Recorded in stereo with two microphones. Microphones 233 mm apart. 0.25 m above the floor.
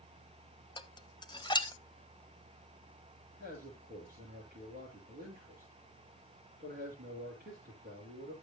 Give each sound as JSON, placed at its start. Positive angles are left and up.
{"t": 0.8, "sound": "dishes clattering", "side_deg": 20, "distance_m": 0.7}
{"t": 3.4, "sound": "a man speaking", "side_deg": -45, "distance_m": 6.5}